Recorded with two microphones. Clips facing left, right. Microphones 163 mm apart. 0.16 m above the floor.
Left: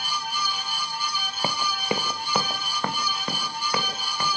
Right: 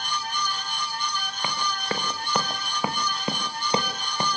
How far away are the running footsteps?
About 2 m.